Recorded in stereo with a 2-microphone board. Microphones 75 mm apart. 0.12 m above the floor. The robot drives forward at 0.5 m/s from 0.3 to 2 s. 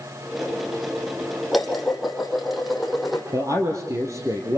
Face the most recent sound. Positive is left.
turn(degrees=-45)  # may be behind; listen again after turning